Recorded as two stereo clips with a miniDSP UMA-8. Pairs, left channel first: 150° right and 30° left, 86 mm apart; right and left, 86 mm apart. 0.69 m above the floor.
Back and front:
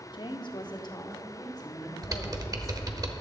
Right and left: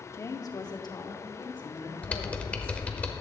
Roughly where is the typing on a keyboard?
Ahead.